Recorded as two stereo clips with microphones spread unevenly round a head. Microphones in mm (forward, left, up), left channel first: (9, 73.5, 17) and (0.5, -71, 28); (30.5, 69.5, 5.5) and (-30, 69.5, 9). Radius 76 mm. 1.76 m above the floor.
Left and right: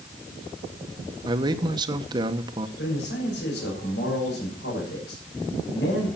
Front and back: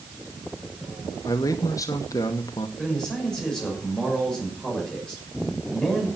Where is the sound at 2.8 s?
80° left, 6.5 m.